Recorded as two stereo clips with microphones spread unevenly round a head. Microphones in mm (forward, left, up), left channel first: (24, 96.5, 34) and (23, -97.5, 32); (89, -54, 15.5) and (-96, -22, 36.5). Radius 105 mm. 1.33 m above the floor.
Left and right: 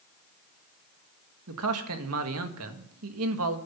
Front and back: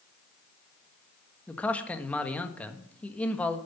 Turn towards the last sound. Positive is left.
turn(degrees=-95)